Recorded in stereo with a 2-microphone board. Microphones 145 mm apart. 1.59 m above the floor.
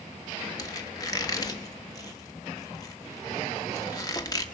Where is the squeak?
25° left (ahead or behind), 1.3 m.